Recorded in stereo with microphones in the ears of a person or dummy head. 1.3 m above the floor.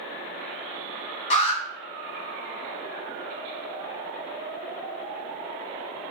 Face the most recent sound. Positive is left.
turn(degrees=40)  # may be behind; listen again after turning